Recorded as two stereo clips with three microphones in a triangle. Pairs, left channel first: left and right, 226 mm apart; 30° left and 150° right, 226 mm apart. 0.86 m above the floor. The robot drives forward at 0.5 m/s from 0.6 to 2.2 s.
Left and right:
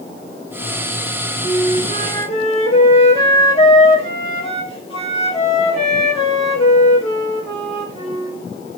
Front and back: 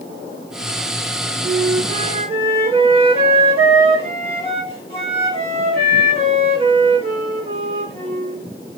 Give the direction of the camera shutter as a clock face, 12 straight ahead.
No camera shutter in this recording.